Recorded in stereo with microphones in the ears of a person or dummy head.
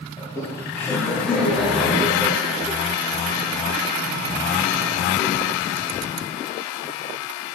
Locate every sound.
0.2 s laughter: 25° left (ahead or behind), 4 m; by 2.8 s 10° right (ahead or behind), 4 m